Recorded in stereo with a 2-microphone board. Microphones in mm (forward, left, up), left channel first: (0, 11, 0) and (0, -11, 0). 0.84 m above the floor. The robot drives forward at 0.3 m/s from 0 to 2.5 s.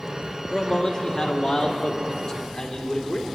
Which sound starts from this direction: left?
A man speaking, at 0.5 s.